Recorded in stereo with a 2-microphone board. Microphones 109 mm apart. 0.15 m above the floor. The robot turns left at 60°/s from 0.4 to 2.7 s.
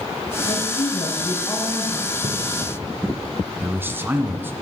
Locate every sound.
0.5 s a woman speaking: 85° left, 8 m; by 2.3 s 25° right, 8 m
2.2 s a splash: 75° right (ahead or behind), 4.5 m; by 2.3 s 80° right, 4.5 m
3.6 s a man speaking: 20° right (ahead or behind), 1.6 m